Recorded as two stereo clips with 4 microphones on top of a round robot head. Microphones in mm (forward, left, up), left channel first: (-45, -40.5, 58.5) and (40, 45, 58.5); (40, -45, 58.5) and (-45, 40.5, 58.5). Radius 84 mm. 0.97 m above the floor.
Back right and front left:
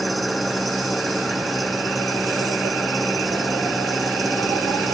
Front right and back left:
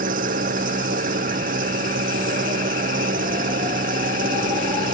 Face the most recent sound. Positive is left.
turn(degrees=135)